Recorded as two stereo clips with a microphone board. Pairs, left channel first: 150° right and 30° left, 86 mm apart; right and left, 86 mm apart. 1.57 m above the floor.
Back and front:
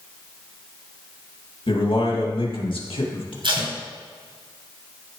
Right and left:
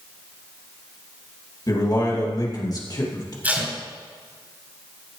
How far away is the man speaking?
About 2.5 m.